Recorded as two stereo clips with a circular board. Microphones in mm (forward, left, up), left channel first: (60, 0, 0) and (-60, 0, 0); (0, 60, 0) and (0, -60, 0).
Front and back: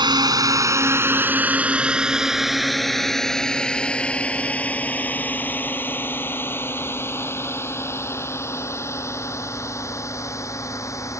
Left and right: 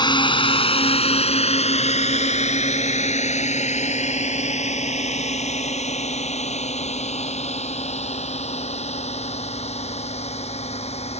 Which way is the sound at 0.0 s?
135° left.